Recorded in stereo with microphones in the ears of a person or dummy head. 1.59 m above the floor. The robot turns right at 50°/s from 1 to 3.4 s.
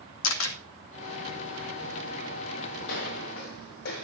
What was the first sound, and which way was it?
A camera shutter, 80° left.